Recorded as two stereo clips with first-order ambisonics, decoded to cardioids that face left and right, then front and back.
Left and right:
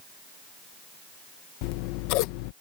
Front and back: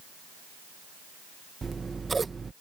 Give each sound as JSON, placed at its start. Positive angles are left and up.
{"t": 1.6, "sound": "scissors", "azimuth_deg": 100}